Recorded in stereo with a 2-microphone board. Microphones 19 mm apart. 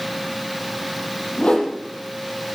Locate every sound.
1.4 s a whoosh: 55° left (ahead or behind), 5 m